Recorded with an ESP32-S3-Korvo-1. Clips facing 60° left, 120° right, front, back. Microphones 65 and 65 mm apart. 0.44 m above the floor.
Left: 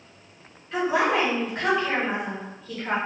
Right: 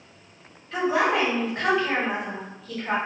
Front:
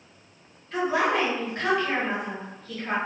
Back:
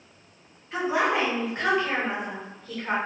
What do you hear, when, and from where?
0.7 s a woman speaking: 135° left, 1.4 m